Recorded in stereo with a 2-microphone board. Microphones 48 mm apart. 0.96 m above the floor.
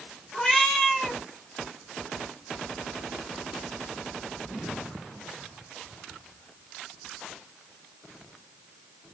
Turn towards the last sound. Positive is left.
turn(degrees=10)  # may be behind; listen again after turning